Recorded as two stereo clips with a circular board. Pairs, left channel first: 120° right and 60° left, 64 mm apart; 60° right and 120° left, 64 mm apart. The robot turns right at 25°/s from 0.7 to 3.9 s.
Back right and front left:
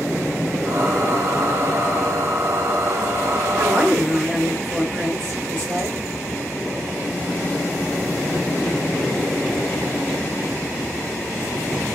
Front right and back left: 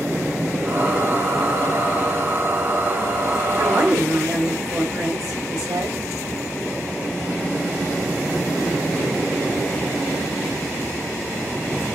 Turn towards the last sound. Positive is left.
turn(degrees=115)